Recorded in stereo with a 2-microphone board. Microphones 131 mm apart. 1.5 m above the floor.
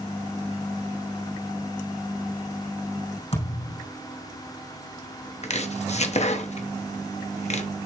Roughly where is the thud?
Left.